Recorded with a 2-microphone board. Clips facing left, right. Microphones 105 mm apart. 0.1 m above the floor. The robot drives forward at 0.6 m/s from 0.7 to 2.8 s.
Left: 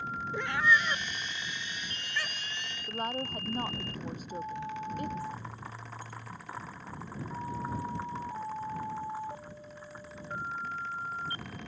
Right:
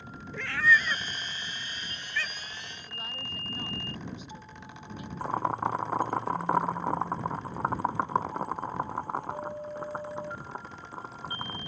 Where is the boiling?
60° right (ahead or behind).